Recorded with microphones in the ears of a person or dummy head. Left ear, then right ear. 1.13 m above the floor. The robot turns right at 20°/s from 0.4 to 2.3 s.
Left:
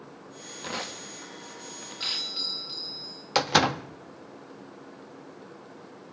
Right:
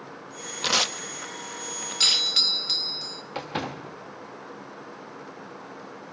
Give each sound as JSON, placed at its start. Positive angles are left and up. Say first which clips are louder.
{"t": 0.6, "sound": "tearing paper", "louder": "right 12 dB", "side_deg": -60, "distance_m": 0.9}
{"t": 2.0, "sound": "a doorbell", "louder": "right 10 dB", "side_deg": -65, "distance_m": 1.3}
{"t": 3.4, "sound": "a door slam", "louder": "left 11 dB", "side_deg": 70, "distance_m": 0.9}